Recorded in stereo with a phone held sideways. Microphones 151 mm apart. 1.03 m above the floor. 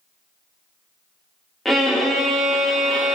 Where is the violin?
Centre (ahead or behind), 0.6 m.